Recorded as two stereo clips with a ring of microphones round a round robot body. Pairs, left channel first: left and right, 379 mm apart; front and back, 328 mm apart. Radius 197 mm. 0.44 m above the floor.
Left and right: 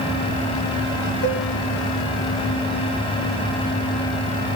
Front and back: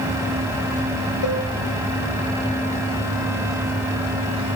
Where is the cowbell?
30° left, 1.5 m.